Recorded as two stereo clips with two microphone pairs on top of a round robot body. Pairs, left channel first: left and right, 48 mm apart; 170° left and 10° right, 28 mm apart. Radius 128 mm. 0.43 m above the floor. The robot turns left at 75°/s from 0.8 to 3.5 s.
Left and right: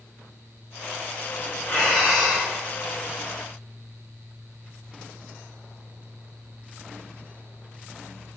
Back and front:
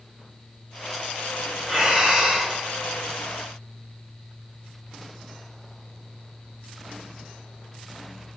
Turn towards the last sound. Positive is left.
turn(degrees=-80)